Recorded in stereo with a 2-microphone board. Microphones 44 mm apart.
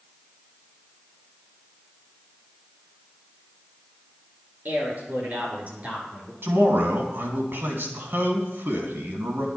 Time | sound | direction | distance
4.7 | a man speaking | 45° right (ahead or behind) | 6 m
6.4 | a man speaking | 55° right (ahead or behind) | 3 m